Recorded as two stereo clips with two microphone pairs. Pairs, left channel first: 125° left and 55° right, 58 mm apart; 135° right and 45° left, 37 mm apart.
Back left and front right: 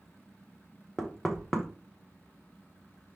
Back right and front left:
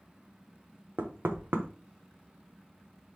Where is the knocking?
40° left, 0.7 m.